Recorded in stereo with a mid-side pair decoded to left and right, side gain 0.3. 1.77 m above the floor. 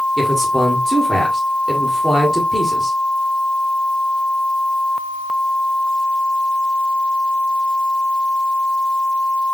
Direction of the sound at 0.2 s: 15° right.